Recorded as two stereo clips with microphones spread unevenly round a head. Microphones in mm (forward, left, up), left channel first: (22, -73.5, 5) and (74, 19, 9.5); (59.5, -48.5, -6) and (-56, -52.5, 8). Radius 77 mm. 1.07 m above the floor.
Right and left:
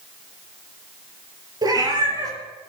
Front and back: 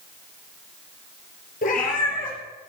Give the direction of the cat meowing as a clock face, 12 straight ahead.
12 o'clock.